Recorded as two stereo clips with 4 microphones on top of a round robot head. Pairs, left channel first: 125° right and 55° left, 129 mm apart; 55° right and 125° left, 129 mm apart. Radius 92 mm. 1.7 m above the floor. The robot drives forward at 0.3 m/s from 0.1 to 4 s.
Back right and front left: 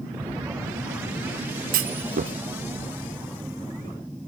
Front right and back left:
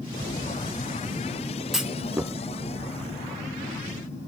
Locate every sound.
1.7 s a clunk: 35° left, 0.6 m; by 2.3 s 50° left, 0.5 m